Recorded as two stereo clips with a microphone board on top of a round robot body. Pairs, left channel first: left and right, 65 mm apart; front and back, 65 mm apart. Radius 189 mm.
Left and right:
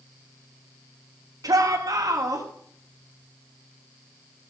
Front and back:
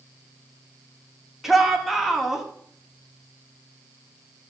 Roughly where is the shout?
Right.